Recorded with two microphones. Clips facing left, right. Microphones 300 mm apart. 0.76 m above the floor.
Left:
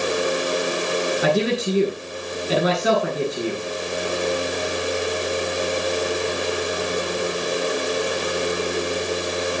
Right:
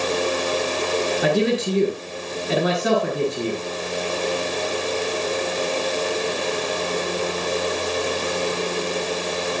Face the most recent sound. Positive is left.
turn(degrees=5)  # may be behind; listen again after turning